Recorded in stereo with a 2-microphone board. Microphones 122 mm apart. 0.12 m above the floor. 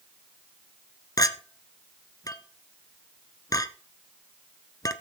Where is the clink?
30° left (ahead or behind), 0.9 m.